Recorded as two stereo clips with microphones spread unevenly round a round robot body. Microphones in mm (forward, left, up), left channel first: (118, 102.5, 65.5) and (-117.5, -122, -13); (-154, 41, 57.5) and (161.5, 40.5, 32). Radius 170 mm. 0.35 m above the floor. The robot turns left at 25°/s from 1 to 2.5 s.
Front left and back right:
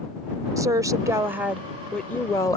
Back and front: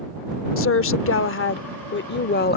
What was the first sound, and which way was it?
A woman speaking, 175° left.